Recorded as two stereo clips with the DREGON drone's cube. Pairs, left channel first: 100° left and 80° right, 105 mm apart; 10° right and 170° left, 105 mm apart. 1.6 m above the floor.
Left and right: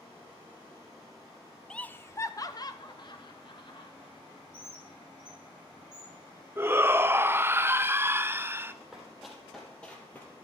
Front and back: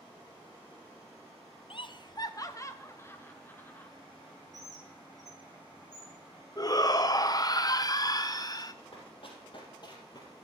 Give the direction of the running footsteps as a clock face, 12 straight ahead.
12 o'clock.